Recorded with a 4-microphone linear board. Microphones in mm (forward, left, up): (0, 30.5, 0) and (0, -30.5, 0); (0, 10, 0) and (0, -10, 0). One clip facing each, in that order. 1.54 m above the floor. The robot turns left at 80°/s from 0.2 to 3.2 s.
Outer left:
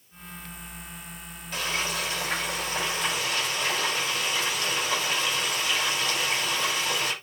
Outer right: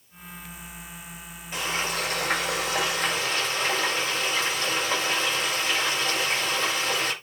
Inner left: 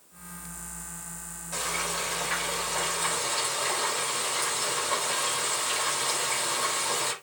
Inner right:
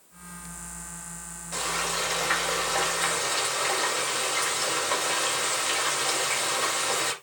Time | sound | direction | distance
1.5 | frying | 15° right | 8 m